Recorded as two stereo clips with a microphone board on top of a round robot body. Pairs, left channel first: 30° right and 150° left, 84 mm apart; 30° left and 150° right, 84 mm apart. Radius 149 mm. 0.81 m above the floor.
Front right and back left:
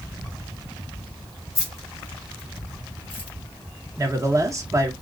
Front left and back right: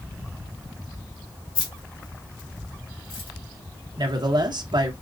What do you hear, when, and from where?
1.6 s keys jangling: 25° left, 3.5 m; by 3.3 s 45° left, 2.5 m
4.0 s a man speaking: 165° right, 1.3 m